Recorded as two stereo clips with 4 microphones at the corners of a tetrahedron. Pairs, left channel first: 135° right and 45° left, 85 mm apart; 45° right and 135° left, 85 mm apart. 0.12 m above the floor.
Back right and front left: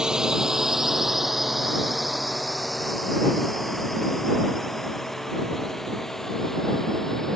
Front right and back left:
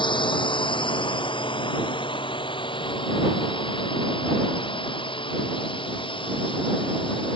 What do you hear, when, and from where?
0.0 s a drone: 35° right; by 7.4 s 50° right